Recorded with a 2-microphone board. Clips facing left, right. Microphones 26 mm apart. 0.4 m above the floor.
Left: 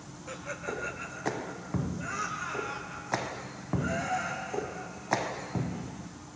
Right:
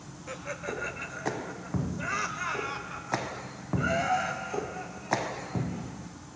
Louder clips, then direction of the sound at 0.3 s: Right 1 dB; 15° right (ahead or behind).